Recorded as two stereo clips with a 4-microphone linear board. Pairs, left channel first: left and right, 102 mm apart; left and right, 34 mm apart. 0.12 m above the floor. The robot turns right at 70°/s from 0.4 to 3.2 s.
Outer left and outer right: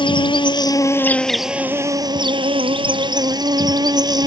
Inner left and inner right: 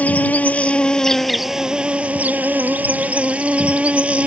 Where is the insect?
110° left; by 4.3 s 50° right.